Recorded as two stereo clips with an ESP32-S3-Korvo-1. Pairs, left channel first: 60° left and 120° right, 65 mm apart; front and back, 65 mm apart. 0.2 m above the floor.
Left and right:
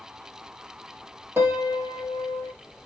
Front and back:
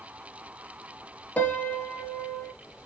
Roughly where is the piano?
Ahead right.